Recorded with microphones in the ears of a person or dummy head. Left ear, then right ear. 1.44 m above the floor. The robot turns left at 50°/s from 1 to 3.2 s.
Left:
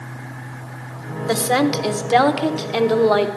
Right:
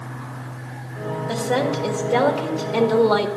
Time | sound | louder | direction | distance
1.3 | a woman speaking | left 4 dB | 100° left | 1.0 m